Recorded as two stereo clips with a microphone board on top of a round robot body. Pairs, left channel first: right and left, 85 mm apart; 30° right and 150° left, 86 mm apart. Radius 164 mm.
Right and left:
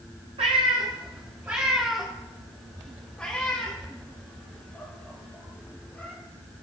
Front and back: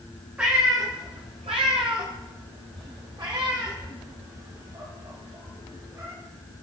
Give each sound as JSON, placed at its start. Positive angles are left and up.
{"t": 0.4, "sound": "a cat meowing", "azimuth_deg": 75, "distance_m": 0.8}